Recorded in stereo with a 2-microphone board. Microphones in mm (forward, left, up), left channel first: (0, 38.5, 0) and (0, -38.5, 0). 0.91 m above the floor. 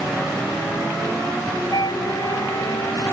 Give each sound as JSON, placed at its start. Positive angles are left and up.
{"t": 1.7, "sound": "a flute", "side_deg": 60}